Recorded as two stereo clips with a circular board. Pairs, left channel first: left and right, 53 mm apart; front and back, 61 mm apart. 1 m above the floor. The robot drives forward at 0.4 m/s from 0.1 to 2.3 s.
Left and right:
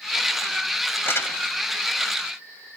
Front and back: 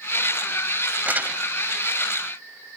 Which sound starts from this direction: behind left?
Crumpling, at 1.1 s.